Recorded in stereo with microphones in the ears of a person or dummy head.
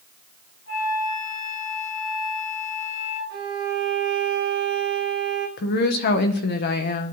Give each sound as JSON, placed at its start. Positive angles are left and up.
{"t": 0.7, "sound": "a flute", "side_deg": 70, "distance_m": 3.5}
{"t": 3.3, "sound": "a violin", "side_deg": -65, "distance_m": 1.8}
{"t": 5.6, "sound": "a woman speaking", "side_deg": 55, "distance_m": 0.8}